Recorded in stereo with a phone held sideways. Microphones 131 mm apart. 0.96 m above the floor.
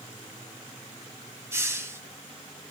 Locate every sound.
1.5 s a hiss: 20° right (ahead or behind), 1.3 m